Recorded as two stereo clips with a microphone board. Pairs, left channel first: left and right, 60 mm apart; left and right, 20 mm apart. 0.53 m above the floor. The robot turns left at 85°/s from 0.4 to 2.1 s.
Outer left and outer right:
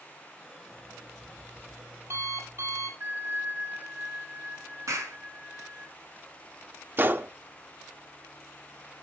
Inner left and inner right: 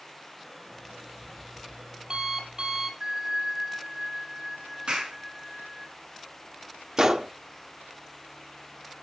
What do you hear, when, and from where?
0.7 s an alarm clock: 65° left, 7.5 m; by 2.9 s 55° right, 7.5 m
3.0 s a bell: 35° right (ahead or behind), 1.3 m
4.9 s a clap: 60° right (ahead or behind), 5.5 m
7.0 s a gunshot: 35° right (ahead or behind), 0.7 m